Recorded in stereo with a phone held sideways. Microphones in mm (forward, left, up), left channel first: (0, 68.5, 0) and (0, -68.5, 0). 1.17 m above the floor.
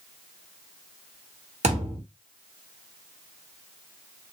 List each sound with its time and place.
1.6 s a thud: 55° right (ahead or behind), 1.4 m